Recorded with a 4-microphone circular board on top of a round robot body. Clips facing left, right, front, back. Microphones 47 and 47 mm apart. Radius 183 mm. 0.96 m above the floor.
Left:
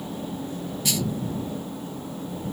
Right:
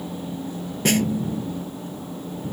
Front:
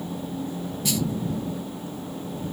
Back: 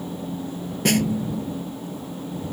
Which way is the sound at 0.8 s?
140° right.